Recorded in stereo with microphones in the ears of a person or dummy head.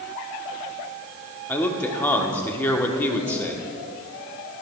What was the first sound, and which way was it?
A man speaking, 10° left (ahead or behind).